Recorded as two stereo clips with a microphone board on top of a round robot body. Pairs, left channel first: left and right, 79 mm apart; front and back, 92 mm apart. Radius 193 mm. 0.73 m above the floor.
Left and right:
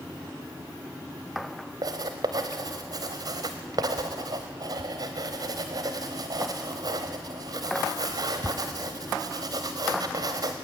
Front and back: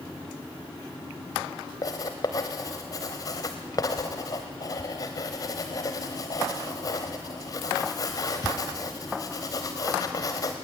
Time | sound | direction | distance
1.8 | writing | 55° right | 0.7 m